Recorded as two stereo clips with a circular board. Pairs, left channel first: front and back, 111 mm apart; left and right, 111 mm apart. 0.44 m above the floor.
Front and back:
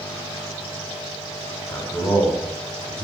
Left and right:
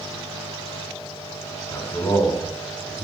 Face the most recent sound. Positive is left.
turn(degrees=45)